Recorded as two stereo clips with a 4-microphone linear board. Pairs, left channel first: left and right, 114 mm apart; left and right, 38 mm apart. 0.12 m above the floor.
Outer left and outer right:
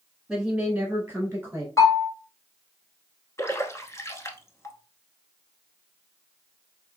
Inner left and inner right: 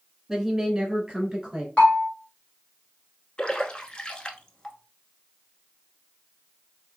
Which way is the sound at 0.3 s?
5° right (ahead or behind).